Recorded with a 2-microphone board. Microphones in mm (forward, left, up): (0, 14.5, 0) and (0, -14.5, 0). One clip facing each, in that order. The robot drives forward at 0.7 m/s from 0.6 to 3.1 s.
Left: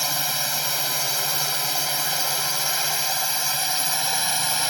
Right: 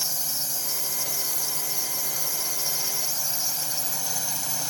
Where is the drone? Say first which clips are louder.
Left 7 dB; 65° left (ahead or behind).